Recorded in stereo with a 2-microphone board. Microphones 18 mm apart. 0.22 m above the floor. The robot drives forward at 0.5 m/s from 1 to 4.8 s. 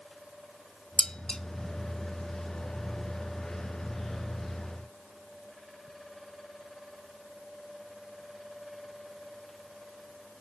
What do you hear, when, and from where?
1.0 s dishes clattering: 45° left (ahead or behind), 1.1 m